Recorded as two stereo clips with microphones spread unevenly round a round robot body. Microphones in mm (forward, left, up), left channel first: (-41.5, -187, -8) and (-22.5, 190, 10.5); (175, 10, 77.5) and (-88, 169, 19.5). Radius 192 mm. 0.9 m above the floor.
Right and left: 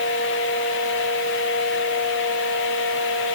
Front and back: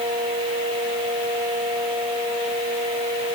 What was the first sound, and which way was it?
Only background noise.